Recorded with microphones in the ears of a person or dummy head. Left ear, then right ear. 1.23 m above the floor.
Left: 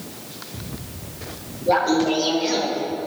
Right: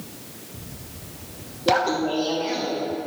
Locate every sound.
1.7 s laughter: 35° right (ahead or behind), 1.0 m; by 2.8 s 30° left (ahead or behind), 1.9 m